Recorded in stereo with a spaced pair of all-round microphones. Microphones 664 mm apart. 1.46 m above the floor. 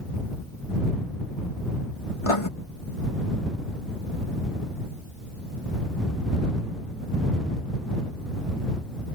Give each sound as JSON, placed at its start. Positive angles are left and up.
{"t": 2.2, "sound": "writing", "side_deg": 50}